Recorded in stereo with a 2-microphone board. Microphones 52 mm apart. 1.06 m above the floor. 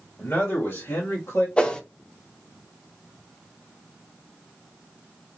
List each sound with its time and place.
0.2 s a man speaking: 50° left (ahead or behind), 1.6 m; by 1.5 s 80° left, 1.6 m
1.6 s a whoosh: 20° left (ahead or behind), 0.6 m